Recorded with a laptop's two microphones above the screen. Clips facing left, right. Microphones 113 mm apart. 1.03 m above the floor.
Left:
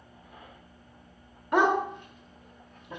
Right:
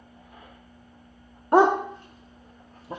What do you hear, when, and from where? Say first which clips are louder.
1.5 s a dog barking: right 5 dB; 35° right (ahead or behind), 0.6 m